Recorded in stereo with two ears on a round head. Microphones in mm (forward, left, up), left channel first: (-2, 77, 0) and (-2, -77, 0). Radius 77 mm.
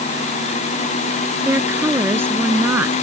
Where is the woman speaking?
15° right (ahead or behind).